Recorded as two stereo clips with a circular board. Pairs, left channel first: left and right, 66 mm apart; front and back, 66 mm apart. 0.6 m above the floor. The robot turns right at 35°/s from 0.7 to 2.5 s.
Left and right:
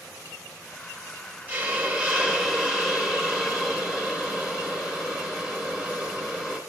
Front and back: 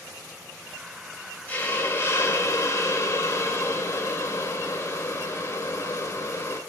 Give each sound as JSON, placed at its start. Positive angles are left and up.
{"t": 1.5, "sound": "a hiss", "azimuth_deg": -45, "distance_m": 1.0}